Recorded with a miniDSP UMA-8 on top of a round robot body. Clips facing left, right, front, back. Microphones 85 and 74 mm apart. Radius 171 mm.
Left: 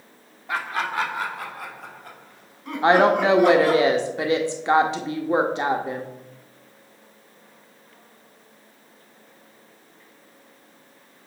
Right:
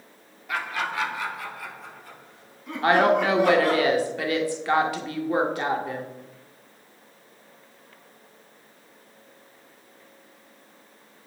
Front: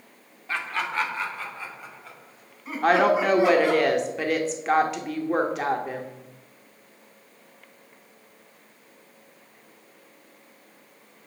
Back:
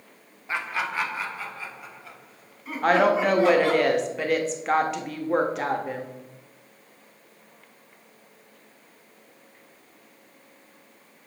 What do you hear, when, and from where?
0.5 s laughter: 115° left, 1.5 m; by 3.8 s 85° left, 4 m
2.8 s a woman speaking: 90° left, 1.0 m